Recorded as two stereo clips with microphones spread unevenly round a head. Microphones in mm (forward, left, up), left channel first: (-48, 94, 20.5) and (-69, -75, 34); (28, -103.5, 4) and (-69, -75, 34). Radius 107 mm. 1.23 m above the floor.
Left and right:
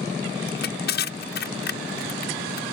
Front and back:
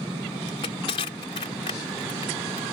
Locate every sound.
0.5 s crushing: 40° left